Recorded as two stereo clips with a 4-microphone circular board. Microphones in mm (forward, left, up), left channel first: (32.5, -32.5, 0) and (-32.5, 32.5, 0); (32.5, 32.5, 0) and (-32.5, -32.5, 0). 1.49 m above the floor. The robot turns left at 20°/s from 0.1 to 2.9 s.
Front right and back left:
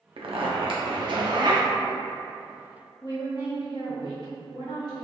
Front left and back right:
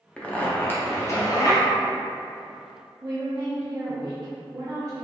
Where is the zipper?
125° left, 0.6 m; by 1.6 s 95° left, 0.6 m.